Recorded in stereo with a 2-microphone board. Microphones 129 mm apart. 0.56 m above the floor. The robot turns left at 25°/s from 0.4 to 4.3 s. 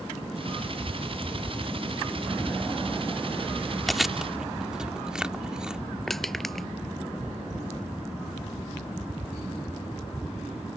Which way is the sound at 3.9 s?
Centre (ahead or behind).